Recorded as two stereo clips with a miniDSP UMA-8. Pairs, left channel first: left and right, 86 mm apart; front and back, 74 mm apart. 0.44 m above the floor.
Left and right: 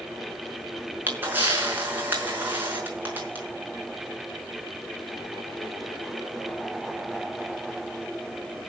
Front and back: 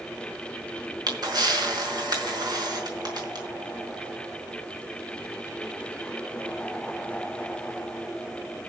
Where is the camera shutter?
155° right, 5.5 m.